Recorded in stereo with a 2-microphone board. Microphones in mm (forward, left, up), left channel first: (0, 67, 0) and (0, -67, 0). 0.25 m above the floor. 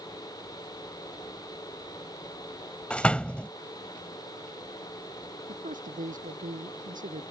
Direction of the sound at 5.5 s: 85° right.